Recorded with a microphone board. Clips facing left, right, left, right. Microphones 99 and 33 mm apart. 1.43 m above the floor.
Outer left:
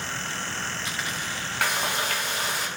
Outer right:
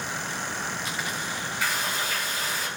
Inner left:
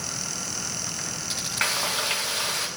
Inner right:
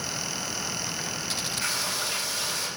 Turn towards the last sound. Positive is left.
turn(degrees=65)  # may be behind; listen again after turning